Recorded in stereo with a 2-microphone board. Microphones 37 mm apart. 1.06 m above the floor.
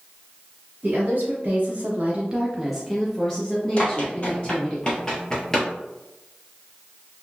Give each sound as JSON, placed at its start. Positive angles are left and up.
{"t": 0.8, "sound": "a woman speaking", "side_deg": -55, "distance_m": 1.2}
{"t": 3.8, "sound": "running footsteps", "side_deg": 35, "distance_m": 1.5}